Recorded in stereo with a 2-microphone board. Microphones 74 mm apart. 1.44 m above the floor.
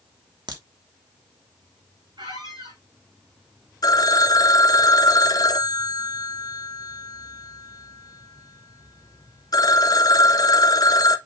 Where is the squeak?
80° right, 5 m.